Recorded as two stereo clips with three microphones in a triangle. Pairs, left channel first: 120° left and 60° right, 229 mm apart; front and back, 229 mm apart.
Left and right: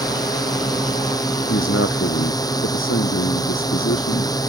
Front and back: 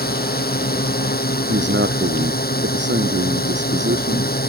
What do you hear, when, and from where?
0.0 s a drone: 45° left
1.5 s a man speaking: 145° left